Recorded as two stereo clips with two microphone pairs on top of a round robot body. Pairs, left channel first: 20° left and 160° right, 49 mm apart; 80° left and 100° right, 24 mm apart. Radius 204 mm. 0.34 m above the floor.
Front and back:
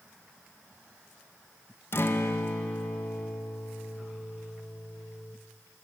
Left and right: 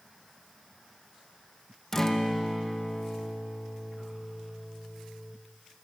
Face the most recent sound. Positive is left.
turn(degrees=20)